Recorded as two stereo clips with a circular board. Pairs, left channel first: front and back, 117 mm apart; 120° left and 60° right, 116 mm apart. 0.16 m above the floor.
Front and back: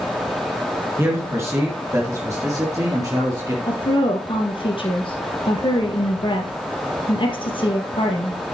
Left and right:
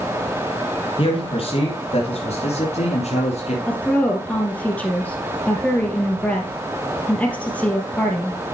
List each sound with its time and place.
1.0 s a man speaking: 120° left, 2.5 m; by 3.6 s 125° left, 4 m
3.7 s a woman speaking: 40° left, 3.5 m